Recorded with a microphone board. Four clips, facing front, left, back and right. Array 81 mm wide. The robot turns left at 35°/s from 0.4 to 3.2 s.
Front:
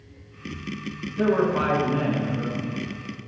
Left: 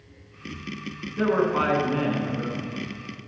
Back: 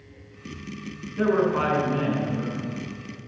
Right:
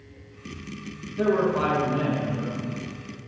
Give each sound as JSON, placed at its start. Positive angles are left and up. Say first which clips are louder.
{"t": 1.2, "sound": "a man speaking", "louder": "even, even", "azimuth_deg": 120, "distance_m": 1.5}